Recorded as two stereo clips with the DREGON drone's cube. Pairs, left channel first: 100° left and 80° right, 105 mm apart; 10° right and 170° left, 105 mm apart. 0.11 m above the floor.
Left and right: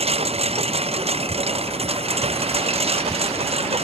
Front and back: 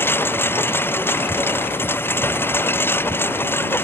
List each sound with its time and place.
0.0 s a lawn mower: 80° right